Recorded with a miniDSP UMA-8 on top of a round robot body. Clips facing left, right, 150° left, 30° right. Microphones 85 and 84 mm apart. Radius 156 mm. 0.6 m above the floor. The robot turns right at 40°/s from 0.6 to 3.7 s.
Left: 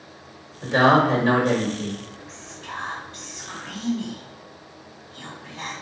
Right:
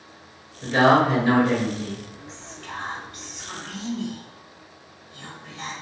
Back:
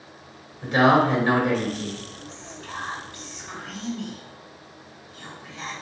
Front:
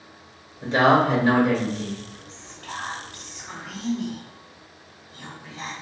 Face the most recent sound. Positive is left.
turn(degrees=55)